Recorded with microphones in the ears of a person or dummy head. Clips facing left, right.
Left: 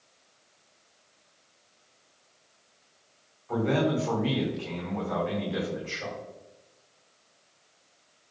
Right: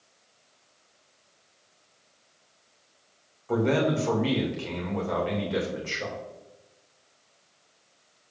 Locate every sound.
3.5 s a man speaking: 50° right (ahead or behind), 2.5 m